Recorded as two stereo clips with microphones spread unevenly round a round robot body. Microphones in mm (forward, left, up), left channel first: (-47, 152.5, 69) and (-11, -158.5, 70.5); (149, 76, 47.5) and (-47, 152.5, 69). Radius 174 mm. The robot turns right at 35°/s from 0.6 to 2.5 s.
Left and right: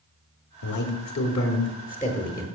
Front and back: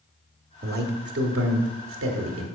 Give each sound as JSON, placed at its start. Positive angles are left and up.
{"t": 0.6, "sound": "a man speaking", "azimuth_deg": 110, "distance_m": 1.3}